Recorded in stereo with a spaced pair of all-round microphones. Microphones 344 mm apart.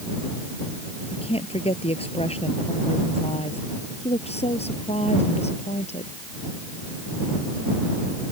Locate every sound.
1.1 s a woman speaking: 15° left (ahead or behind); by 6.1 s 20° left (ahead or behind)